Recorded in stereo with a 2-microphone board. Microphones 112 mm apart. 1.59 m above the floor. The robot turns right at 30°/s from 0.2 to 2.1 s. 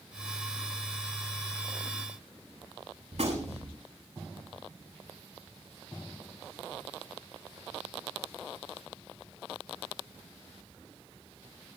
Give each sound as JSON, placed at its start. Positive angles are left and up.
{"t": 3.1, "sound": "a gunshot", "side_deg": -80, "distance_m": 7.0}